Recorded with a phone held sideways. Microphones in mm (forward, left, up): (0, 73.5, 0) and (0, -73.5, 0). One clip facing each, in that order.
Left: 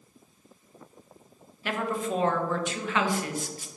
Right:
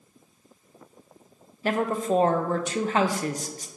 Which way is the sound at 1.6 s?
40° right (ahead or behind).